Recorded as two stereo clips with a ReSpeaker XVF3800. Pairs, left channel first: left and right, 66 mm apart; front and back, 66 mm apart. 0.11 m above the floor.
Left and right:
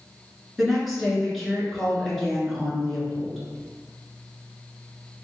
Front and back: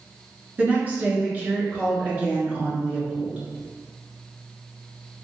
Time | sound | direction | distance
0.6 | a woman speaking | straight behind | 1.2 m